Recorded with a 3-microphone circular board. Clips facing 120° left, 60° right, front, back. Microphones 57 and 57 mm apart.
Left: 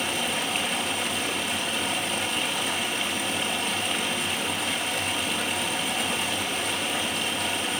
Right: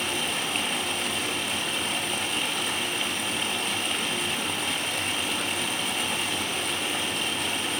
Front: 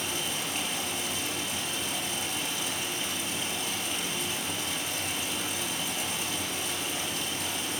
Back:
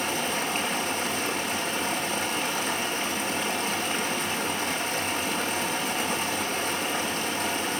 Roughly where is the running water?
Behind right.